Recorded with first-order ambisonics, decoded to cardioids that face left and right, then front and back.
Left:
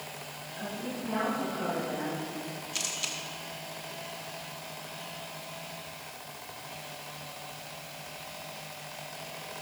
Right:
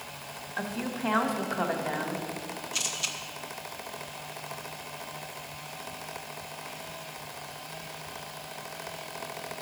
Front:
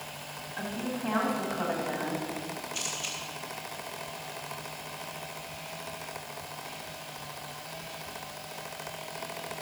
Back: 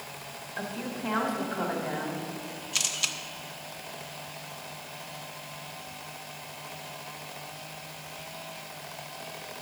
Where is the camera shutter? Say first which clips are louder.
Right 2 dB, back 7 dB; 175° right, 1.2 m.